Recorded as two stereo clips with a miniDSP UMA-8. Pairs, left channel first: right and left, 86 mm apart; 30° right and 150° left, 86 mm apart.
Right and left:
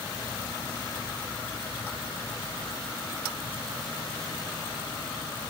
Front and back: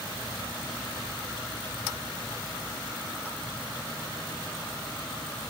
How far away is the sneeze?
No sneeze in this recording.